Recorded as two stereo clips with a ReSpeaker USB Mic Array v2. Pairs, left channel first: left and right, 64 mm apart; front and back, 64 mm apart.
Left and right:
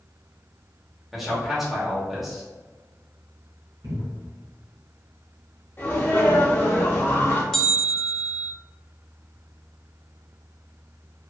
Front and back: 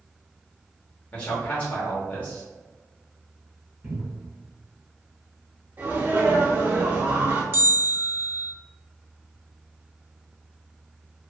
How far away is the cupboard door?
About 1.1 m.